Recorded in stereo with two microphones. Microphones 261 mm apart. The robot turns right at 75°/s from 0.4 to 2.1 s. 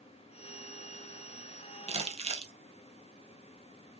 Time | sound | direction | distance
1.9 | crumpling | 25° right (ahead or behind) | 0.6 m